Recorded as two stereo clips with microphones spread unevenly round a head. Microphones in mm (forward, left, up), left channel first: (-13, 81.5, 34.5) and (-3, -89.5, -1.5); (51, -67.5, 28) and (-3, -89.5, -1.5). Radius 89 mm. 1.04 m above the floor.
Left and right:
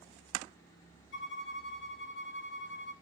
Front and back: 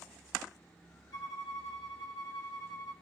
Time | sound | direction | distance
1.1 | a violin | 70° left | 1.4 m